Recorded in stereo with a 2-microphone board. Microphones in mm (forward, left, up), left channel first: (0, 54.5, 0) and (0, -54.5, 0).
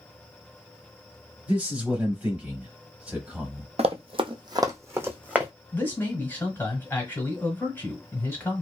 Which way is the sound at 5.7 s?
20° left (ahead or behind).